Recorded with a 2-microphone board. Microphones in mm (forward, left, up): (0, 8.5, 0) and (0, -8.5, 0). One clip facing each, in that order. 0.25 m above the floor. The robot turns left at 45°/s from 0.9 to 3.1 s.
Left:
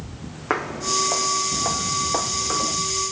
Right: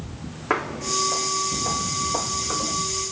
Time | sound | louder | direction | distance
0.5 | footsteps | left 1 dB | 20° left (ahead or behind) | 0.6 m